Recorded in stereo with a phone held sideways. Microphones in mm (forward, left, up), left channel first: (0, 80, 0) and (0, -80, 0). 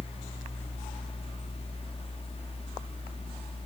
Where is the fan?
35° left (ahead or behind), 1.0 m.